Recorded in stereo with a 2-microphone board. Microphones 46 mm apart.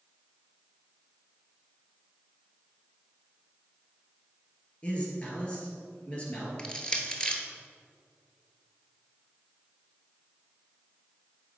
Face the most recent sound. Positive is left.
turn(degrees=20)  # may be behind; listen again after turning